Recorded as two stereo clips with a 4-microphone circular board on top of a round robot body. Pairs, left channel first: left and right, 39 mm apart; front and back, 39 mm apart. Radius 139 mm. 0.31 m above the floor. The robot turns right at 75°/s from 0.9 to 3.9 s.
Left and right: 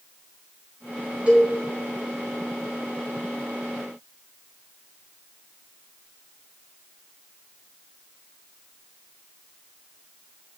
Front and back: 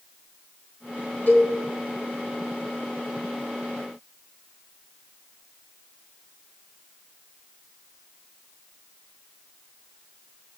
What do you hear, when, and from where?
1.3 s a cowbell: 35° right, 7 m; by 1.5 s 15° right, 7 m